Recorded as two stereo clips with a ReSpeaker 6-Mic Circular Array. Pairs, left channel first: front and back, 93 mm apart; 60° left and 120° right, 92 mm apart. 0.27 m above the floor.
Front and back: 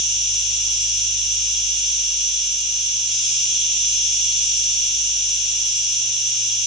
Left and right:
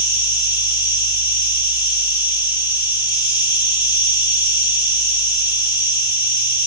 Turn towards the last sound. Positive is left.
turn(degrees=90)